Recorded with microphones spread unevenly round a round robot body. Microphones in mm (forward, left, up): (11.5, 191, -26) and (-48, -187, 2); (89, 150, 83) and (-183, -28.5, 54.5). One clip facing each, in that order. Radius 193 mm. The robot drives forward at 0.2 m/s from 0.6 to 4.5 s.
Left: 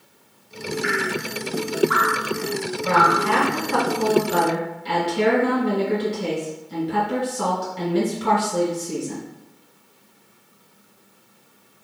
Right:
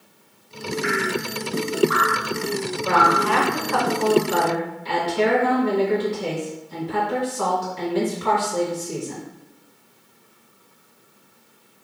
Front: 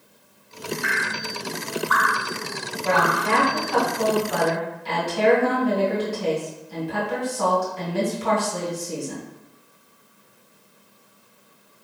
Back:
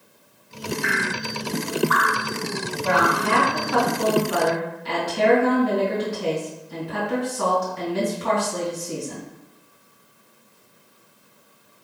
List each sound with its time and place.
0.8 s dripping: 165° left, 1.6 m; by 3.2 s 170° left, 2 m
2.8 s a woman speaking: 135° left, 1.9 m; by 9.2 s 140° left, 2 m